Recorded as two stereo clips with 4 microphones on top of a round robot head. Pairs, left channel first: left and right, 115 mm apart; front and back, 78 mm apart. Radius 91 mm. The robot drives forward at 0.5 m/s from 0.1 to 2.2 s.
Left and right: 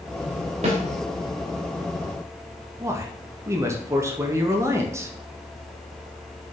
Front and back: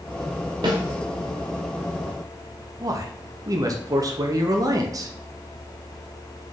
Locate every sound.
0.6 s a snare drum: 135° right, 0.9 m
2.8 s a man speaking: 150° right, 0.8 m